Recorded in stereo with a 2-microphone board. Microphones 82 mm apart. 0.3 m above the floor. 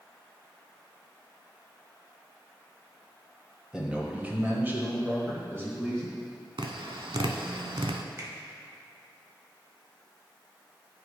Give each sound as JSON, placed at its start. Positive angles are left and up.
{"t": 3.7, "sound": "a man speaking", "side_deg": -10, "distance_m": 1.3}
{"t": 6.6, "sound": "tapping", "side_deg": -80, "distance_m": 0.5}
{"t": 8.2, "sound": "a finger snap", "side_deg": -40, "distance_m": 1.4}